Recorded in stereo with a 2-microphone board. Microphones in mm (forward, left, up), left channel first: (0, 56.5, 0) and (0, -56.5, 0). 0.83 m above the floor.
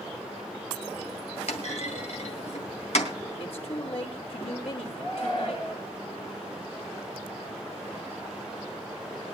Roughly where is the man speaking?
Left.